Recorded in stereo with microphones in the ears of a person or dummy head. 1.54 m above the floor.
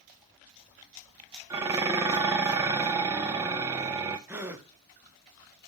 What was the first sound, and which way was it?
Dishes clattering, 15° right (ahead or behind).